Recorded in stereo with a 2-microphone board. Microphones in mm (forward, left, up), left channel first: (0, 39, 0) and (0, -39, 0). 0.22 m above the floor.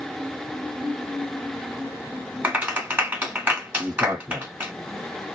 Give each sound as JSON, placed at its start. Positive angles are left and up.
{"t": 2.4, "sound": "a clap", "side_deg": -20, "distance_m": 1.8}
{"t": 3.8, "sound": "a man speaking", "side_deg": -20, "distance_m": 1.8}